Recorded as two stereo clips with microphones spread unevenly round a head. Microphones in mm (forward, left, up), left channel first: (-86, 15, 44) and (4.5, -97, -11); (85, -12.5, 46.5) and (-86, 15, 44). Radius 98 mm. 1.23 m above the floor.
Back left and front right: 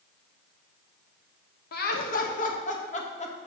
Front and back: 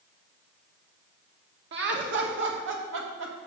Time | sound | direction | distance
1.7 | laughter | 150° left | 1.4 m